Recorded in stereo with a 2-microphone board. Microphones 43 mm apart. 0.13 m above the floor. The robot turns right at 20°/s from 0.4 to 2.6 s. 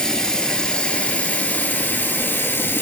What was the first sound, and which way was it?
Running water, 15° left.